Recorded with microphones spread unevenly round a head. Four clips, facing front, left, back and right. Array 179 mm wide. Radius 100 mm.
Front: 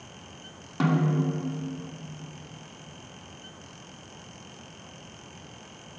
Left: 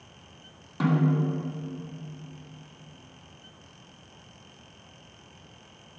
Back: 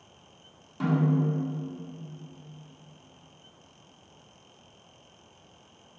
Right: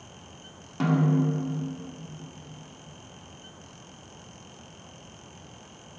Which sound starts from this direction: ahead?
A snare drum, at 0.8 s.